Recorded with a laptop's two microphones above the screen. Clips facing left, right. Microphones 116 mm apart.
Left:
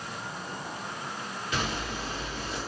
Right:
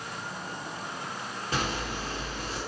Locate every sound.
1.5 s a zipper: 35° right (ahead or behind), 1.5 m